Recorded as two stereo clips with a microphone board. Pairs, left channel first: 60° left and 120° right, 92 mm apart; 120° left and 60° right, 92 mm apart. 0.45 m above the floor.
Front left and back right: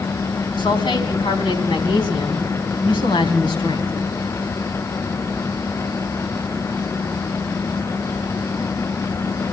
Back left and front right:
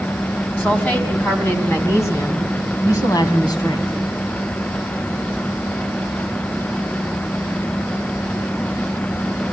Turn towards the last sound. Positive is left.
turn(degrees=85)